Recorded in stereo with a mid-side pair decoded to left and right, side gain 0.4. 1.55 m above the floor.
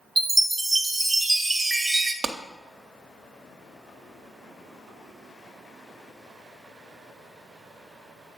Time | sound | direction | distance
0.2 | a chime | 20° right | 0.9 m
2.2 | a clap | 50° right | 0.6 m